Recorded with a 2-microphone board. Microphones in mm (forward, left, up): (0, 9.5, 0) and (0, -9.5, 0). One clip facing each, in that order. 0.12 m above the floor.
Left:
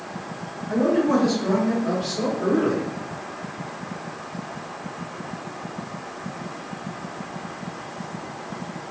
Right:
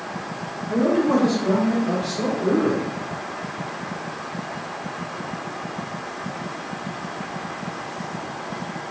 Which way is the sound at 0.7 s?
20° left (ahead or behind).